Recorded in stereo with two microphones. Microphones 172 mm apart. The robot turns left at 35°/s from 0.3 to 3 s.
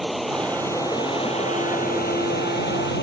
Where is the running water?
Straight behind; by 3.0 s 85° left.